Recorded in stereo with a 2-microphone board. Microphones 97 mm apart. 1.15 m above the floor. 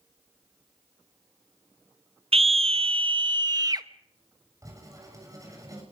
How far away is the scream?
About 0.6 m.